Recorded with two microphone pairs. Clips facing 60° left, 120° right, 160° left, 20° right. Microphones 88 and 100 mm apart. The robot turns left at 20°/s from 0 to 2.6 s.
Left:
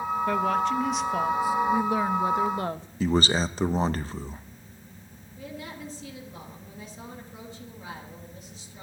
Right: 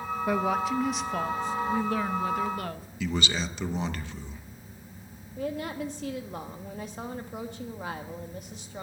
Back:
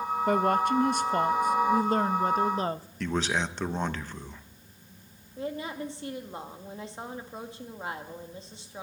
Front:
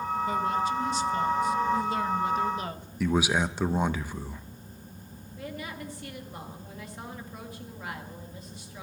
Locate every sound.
0.3 s a woman speaking: 165° left, 0.6 m; by 2.9 s 120° left, 0.6 m
3.0 s a man speaking: 60° left, 0.6 m
5.4 s a woman speaking: 140° right, 1.5 m